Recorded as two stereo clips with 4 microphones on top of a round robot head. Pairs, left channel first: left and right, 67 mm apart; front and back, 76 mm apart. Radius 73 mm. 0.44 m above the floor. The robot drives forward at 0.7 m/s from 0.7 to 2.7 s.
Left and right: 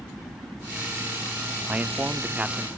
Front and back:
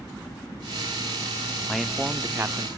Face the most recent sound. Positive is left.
turn(degrees=-155)